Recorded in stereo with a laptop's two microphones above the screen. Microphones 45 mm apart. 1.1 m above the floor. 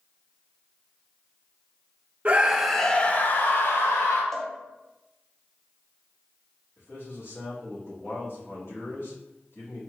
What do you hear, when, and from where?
2.2 s a scream: 30° right (ahead or behind), 0.7 m; by 4.2 s 70° left (ahead or behind), 1.3 m
4.3 s a cowbell: 5° left (ahead or behind), 0.6 m
6.8 s a man speaking: 70° left (ahead or behind), 2.5 m